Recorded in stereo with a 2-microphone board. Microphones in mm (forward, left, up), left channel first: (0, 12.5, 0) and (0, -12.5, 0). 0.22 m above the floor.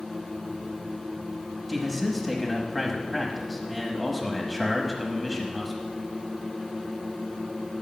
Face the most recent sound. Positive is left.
turn(degrees=10)  # may be behind; listen again after turning